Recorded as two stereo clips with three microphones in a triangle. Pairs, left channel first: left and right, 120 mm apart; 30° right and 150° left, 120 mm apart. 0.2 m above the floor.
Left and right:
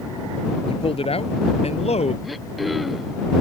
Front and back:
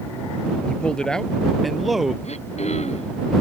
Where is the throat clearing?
Straight ahead.